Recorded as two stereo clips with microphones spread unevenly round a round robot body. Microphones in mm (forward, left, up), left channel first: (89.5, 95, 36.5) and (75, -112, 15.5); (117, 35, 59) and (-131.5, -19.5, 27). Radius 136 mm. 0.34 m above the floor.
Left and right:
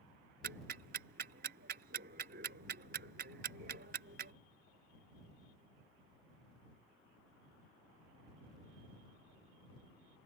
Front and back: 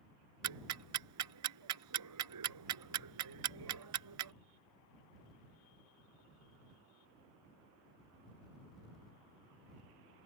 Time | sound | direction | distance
0.4 | ticking | 150° right | ?